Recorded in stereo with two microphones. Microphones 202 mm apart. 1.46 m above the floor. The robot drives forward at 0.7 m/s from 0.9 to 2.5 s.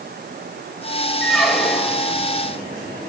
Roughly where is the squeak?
Centre.